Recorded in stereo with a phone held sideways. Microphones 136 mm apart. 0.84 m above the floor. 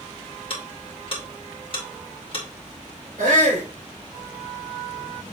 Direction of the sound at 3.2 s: 75° right (ahead or behind).